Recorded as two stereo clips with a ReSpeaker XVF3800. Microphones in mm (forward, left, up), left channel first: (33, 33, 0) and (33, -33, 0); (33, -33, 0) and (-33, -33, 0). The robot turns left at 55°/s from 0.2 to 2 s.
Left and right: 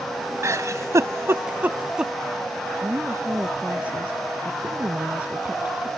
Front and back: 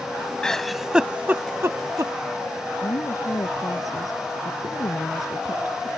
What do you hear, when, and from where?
0.4 s a giggle: 75° right; by 2.1 s 160° right
2.8 s a woman speaking: 20° right